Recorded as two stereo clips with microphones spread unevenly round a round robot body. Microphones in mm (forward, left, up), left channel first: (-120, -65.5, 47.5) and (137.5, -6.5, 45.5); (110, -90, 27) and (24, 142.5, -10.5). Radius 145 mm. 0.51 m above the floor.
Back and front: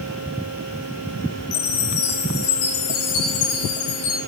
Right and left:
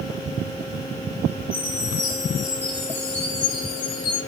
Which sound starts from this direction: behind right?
A chime, at 1.5 s.